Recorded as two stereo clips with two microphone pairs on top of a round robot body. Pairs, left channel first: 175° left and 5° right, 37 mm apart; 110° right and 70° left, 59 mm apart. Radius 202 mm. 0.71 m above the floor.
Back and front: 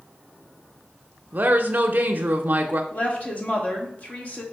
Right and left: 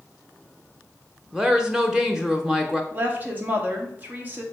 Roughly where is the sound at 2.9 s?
Behind left.